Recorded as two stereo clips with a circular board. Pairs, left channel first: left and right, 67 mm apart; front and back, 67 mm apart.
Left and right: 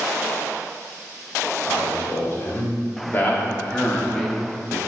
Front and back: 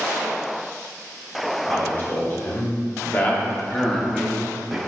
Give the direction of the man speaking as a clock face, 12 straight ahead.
10 o'clock.